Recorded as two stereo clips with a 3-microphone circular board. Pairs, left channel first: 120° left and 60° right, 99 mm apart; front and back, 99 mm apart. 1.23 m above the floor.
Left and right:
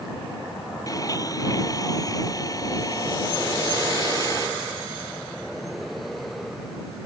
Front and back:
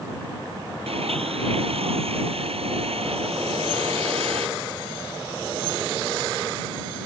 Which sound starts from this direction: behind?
A blender, at 0.9 s.